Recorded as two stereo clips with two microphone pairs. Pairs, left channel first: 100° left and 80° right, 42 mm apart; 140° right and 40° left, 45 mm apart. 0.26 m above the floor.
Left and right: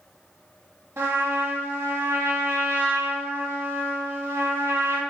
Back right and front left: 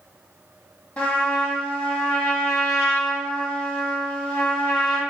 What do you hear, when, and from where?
1.0 s a trumpet: 80° right, 0.8 m